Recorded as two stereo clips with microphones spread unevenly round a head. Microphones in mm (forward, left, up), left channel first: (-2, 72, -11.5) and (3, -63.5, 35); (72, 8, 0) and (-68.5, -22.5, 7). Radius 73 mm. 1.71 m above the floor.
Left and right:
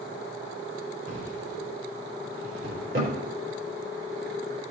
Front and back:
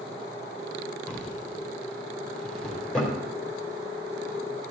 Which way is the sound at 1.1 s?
75° right.